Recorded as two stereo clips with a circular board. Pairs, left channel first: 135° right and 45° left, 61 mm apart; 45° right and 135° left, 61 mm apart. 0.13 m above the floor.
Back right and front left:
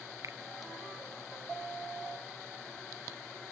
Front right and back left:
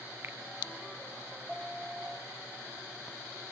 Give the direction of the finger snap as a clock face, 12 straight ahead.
9 o'clock.